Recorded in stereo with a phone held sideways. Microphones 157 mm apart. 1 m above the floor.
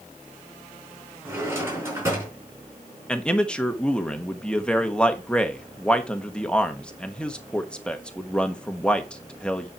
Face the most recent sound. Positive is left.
turn(degrees=5)  # may be behind; listen again after turning